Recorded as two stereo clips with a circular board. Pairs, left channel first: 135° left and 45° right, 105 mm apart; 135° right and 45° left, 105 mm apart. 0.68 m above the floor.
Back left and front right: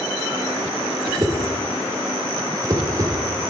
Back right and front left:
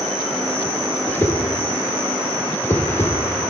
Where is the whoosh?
80° right, 0.8 m.